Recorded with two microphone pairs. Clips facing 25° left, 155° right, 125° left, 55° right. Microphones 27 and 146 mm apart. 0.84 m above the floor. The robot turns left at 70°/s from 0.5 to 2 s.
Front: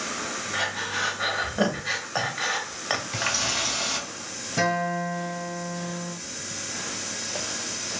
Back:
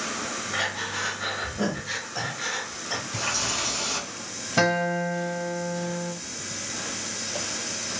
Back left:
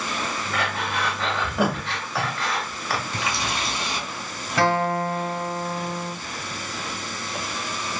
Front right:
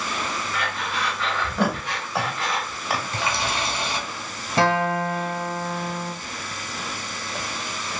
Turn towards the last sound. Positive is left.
turn(degrees=-115)